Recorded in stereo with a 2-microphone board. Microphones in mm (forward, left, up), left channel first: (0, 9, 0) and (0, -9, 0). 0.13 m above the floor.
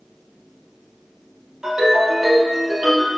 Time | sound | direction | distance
1.6 | a ringtone | 35° right (ahead or behind) | 2.0 m